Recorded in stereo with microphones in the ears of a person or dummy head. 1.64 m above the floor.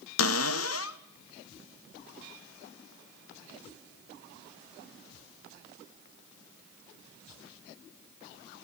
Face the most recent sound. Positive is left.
turn(degrees=80)